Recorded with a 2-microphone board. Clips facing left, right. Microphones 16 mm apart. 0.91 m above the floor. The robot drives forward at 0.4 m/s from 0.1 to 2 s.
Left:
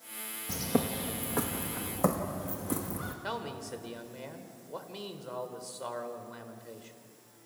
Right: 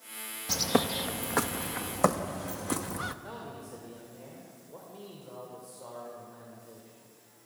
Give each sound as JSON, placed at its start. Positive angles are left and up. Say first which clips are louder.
{"t": 0.5, "sound": "a bird", "louder": "right 4 dB", "side_deg": -60, "distance_m": 0.8}
{"t": 3.2, "sound": "a man speaking", "louder": "left 5 dB", "side_deg": 80, "distance_m": 3.0}